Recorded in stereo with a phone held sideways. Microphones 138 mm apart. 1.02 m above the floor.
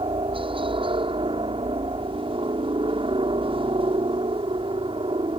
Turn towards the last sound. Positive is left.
turn(degrees=-40)  # may be behind; listen again after turning